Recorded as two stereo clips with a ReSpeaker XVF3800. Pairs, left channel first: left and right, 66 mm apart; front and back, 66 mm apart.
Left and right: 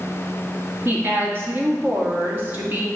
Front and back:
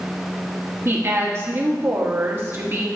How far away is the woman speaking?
About 1.2 m.